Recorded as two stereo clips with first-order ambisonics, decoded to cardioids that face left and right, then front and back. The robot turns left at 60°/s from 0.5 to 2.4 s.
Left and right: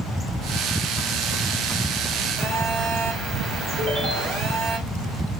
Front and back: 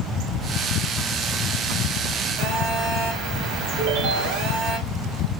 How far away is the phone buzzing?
About 6.5 m.